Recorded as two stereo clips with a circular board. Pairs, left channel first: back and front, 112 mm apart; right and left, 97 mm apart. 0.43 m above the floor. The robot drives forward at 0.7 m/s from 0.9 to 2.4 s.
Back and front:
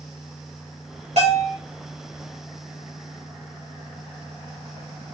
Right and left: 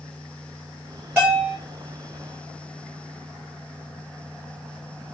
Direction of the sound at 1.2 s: 20° left.